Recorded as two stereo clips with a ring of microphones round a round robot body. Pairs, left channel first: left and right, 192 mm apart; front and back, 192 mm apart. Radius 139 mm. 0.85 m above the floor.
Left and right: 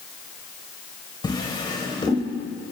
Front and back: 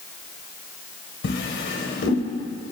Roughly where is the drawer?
Ahead.